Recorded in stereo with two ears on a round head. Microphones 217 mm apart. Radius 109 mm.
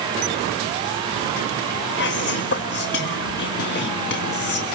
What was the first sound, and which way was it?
Whispering, 45° left (ahead or behind).